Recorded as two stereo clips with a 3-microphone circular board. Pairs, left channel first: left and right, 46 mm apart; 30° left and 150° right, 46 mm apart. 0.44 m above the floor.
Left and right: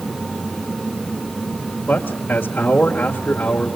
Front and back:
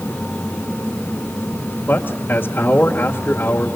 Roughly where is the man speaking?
Ahead left.